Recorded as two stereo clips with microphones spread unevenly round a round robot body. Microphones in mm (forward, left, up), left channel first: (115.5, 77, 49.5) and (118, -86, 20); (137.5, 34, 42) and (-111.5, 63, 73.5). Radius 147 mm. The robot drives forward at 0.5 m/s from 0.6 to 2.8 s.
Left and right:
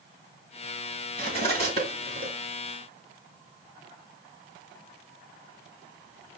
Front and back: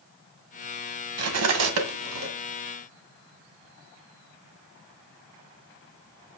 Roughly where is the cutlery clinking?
Behind left.